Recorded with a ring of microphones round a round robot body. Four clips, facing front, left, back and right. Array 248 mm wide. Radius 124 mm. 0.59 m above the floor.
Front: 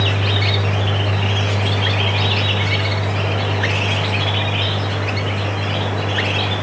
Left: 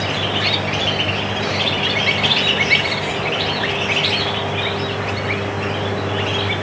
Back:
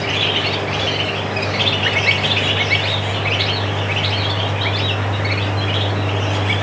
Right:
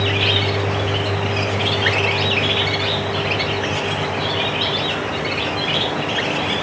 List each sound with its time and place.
Only background noise.